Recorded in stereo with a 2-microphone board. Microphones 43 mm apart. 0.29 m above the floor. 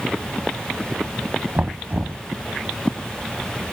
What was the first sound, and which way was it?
Knocking, 45° right (ahead or behind).